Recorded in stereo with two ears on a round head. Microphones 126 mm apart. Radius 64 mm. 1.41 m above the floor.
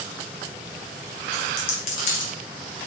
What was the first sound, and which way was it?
A dropped coin, 70° left (ahead or behind).